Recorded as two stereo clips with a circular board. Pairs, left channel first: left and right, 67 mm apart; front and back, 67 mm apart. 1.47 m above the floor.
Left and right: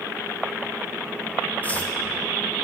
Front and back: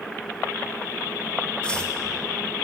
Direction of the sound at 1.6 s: 60° left.